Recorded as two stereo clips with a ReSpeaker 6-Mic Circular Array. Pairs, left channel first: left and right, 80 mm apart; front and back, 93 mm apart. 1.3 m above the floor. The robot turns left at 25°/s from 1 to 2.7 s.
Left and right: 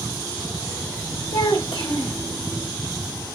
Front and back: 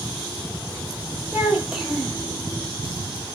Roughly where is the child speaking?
Left.